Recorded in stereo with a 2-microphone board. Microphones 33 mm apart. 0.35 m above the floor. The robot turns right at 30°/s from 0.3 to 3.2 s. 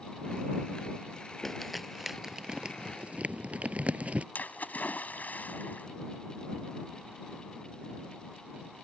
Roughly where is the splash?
Left.